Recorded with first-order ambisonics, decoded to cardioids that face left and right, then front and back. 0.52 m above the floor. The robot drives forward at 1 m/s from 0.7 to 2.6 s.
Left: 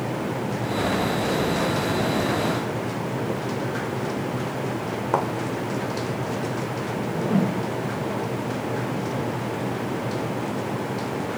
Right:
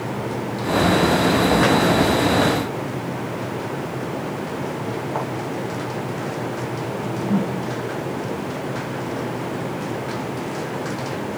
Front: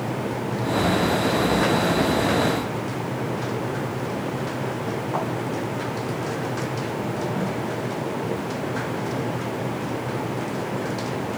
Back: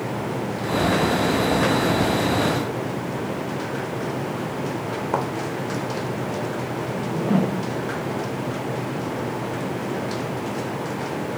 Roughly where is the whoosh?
Behind.